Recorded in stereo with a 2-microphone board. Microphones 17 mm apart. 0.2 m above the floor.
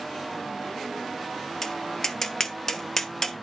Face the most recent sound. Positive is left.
turn(degrees=35)  # may be behind; listen again after turning